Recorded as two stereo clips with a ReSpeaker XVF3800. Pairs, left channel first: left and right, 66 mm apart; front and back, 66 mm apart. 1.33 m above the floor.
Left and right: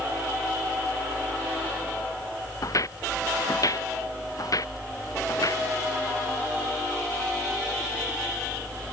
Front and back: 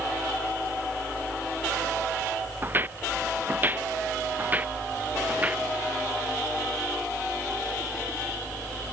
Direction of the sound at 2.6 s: 120° left.